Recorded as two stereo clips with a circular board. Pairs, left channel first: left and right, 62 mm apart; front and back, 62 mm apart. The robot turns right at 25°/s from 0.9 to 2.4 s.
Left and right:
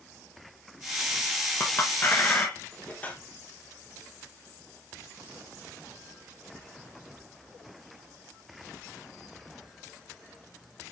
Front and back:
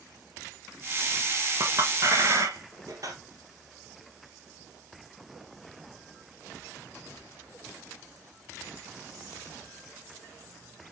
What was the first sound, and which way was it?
A clink, 135° left.